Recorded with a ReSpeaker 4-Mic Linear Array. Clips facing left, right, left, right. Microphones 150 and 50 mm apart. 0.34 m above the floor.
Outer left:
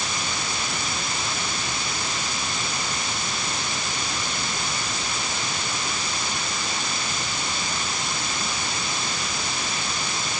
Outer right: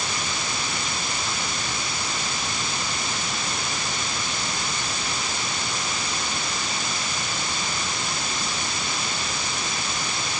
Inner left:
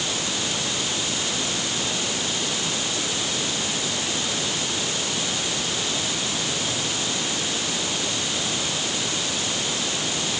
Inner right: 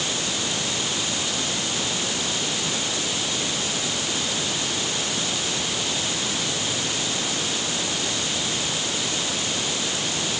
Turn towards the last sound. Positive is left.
No sound to turn to.